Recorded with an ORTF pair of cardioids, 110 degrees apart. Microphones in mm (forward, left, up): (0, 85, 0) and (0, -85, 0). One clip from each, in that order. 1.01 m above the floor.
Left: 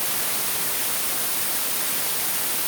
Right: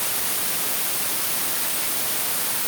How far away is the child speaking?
I don't hear a child speaking.